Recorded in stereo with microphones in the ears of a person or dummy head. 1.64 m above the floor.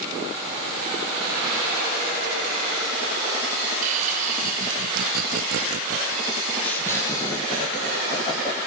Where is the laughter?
40° right (ahead or behind), 1.8 m; by 8.6 s 25° left (ahead or behind), 2.5 m.